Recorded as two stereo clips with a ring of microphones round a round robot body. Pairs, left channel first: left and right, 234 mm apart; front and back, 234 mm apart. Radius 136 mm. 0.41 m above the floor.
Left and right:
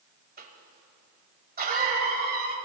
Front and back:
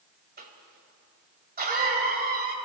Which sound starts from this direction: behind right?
A cough, at 0.4 s.